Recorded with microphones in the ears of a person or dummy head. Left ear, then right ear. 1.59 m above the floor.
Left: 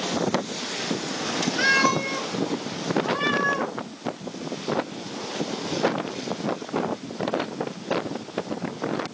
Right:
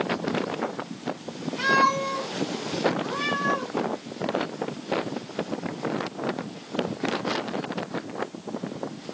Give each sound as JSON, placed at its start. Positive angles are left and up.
{"t": 1.6, "sound": "a cat meowing", "side_deg": 60, "distance_m": 2.5}
{"t": 3.0, "sound": "a cat meowing", "side_deg": 30, "distance_m": 3.5}